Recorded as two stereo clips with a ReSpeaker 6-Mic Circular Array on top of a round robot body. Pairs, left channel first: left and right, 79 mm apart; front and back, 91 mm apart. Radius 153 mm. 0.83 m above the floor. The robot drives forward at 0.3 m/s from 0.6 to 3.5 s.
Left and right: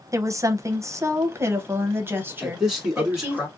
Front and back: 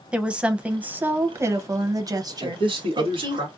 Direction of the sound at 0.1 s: 105° right.